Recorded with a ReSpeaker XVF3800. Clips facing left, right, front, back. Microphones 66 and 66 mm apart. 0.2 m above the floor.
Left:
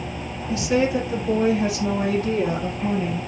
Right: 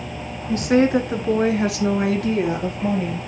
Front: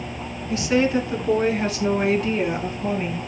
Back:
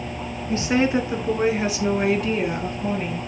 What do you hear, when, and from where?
0.5 s a woman speaking: 130° right, 2 m; by 3.2 s 85° right, 4.5 m